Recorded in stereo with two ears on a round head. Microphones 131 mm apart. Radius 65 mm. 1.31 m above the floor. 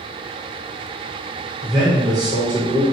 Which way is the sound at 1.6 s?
20° right (ahead or behind).